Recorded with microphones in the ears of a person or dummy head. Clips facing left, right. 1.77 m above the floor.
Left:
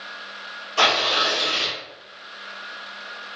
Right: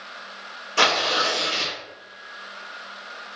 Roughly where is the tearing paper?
Right.